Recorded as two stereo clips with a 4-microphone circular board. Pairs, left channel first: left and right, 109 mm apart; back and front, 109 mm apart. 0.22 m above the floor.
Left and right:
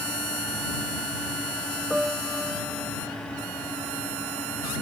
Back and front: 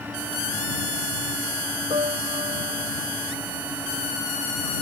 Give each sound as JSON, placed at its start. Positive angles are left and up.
{"t": 1.9, "sound": "a piano", "azimuth_deg": -5}